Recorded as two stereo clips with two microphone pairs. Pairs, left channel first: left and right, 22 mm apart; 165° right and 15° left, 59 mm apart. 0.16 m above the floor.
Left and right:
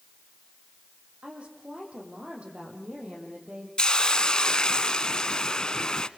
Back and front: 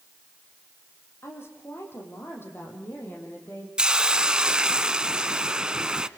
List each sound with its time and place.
1.2 s a woman speaking: 125° right, 7 m; by 3.7 s 110° right, 6.5 m
3.8 s a hiss: 80° left, 0.8 m